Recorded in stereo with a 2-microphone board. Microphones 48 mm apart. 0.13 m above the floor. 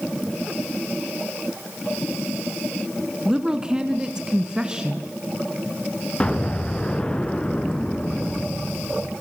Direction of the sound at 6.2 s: 20° left (ahead or behind).